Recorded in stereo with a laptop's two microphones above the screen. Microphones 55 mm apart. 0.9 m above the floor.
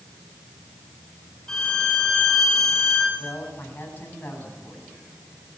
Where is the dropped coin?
I don't hear a dropped coin.